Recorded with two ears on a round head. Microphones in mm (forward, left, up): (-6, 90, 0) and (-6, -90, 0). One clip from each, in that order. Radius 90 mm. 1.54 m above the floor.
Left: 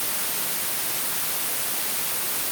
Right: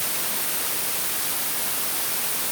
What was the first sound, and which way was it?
Only background noise.